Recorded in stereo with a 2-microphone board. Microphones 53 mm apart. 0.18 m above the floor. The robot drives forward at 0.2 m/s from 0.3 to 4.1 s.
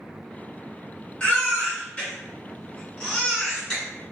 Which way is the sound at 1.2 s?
20° left (ahead or behind).